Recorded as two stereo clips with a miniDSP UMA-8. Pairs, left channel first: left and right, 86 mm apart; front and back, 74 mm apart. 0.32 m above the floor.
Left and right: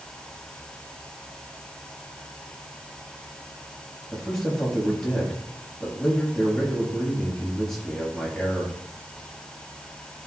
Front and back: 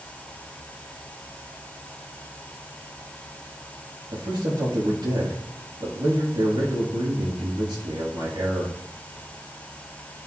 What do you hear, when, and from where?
4.1 s a man speaking: 175° left, 4.5 m